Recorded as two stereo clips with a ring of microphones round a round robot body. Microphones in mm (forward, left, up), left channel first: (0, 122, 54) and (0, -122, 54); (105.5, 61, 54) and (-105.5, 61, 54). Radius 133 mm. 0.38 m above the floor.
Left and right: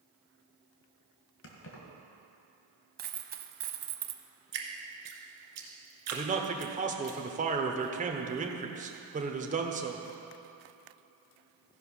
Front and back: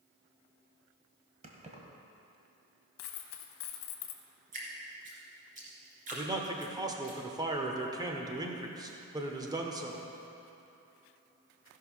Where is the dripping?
120° right, 1.9 m.